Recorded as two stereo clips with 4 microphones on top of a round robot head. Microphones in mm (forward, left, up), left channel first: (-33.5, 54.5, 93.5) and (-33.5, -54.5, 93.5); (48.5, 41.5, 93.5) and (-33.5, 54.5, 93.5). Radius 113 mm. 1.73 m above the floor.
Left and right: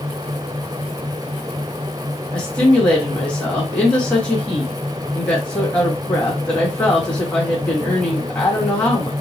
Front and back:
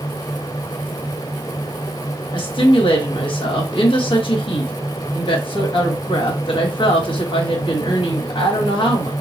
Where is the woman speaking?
10° left, 1.2 m.